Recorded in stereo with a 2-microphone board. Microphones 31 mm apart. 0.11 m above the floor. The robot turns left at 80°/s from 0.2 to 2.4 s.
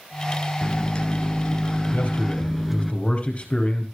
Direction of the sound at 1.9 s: 90° left.